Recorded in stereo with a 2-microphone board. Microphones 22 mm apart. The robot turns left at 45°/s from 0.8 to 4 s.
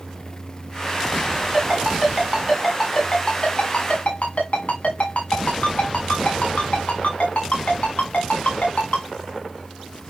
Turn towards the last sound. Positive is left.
turn(degrees=55)  # may be behind; listen again after turning